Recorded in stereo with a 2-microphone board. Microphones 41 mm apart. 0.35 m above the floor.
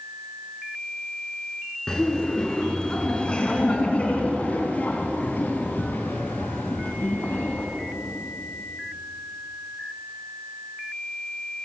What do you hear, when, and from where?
1.9 s laughter: 15° left (ahead or behind), 4 m; by 7.7 s 70° left (ahead or behind), 3 m